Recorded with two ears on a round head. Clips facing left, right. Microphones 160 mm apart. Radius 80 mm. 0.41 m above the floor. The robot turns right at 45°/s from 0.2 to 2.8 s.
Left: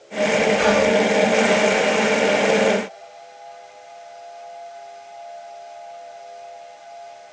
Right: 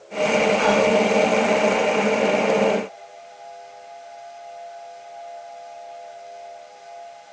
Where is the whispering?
30° left (ahead or behind), 0.8 m.